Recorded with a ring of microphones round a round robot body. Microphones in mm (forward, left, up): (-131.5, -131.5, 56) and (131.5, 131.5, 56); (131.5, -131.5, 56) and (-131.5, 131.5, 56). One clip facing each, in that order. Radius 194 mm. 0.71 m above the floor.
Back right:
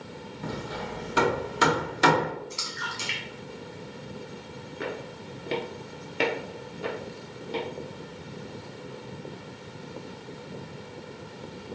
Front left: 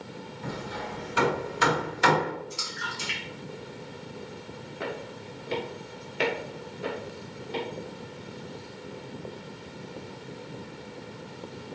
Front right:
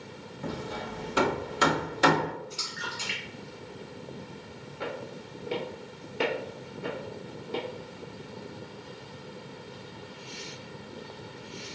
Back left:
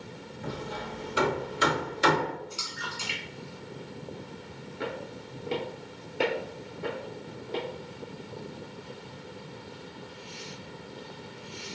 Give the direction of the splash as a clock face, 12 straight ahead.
5 o'clock.